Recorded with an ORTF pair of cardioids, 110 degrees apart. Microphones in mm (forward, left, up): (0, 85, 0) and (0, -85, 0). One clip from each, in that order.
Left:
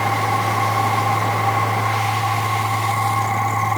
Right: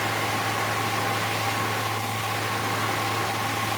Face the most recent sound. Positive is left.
turn(degrees=55)